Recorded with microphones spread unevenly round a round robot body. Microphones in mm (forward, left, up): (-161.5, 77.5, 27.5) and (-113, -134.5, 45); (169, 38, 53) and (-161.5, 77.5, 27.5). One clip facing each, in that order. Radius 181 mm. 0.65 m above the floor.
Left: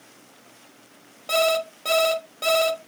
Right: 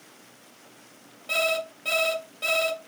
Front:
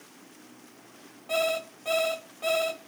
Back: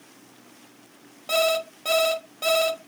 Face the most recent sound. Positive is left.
turn(degrees=145)